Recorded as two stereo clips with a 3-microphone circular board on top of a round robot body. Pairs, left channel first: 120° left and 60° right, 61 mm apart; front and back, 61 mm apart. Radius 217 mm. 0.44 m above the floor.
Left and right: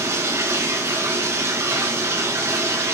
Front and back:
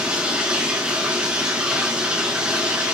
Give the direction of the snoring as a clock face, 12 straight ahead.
No snoring in this recording.